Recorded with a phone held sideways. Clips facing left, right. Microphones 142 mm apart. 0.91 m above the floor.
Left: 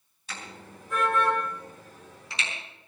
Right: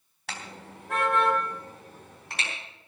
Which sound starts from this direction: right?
A car horn, at 0.3 s.